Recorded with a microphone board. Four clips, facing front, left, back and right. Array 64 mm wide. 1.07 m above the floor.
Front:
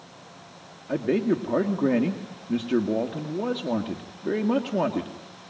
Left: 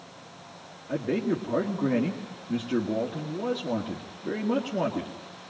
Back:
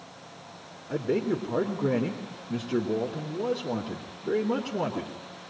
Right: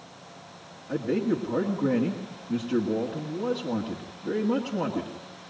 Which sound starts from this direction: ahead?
A man speaking, at 0.9 s.